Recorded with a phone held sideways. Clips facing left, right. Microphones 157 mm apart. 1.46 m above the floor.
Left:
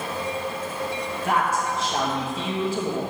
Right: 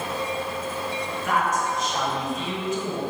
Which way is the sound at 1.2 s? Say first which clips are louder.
Left 1 dB; 30° left (ahead or behind).